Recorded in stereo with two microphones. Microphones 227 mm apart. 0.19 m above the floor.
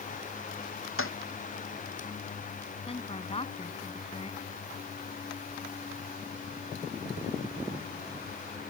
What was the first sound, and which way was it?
A toilet flushing, 70° left (ahead or behind).